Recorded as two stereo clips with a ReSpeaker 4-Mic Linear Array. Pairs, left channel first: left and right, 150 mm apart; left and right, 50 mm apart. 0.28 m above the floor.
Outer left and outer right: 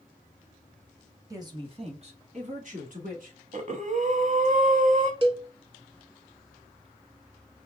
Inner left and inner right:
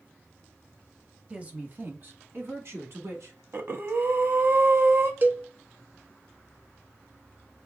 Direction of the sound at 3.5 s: 55° right (ahead or behind).